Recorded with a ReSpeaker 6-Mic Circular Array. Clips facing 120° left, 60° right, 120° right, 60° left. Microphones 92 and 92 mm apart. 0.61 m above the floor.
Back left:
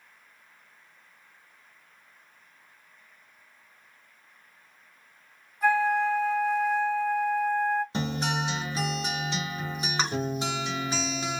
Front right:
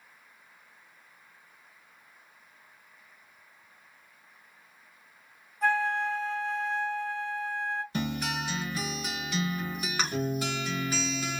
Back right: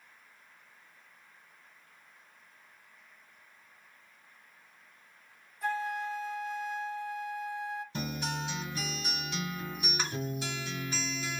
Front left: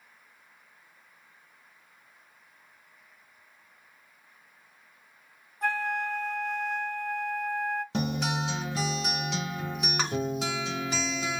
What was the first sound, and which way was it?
A flute, 40° left.